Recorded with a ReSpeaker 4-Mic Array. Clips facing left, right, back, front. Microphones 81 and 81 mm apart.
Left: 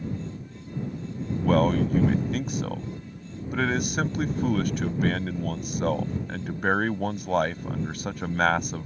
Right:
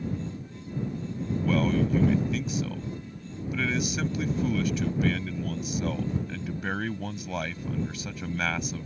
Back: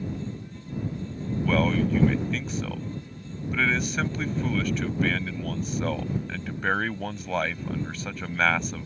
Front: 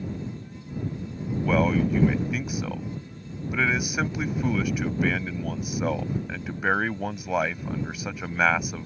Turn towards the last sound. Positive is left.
turn(degrees=80)